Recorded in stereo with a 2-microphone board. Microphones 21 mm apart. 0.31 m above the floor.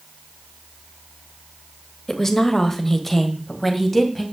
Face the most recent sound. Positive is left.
turn(degrees=5)  # may be behind; listen again after turning